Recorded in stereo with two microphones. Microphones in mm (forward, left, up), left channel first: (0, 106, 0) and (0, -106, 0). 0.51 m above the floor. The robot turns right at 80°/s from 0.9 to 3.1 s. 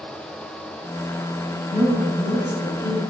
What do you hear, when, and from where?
1.7 s a woman speaking: 145° right, 1.3 m; by 3.0 s 40° right, 1.3 m